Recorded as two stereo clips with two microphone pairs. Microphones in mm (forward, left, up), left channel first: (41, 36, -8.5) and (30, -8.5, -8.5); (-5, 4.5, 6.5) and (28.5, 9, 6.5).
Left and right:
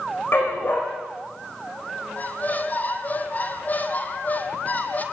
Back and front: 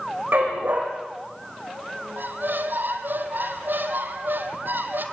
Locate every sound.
0.3 s a dog barking: 35° left, 6 m
2.2 s a squeak: 25° left, 2 m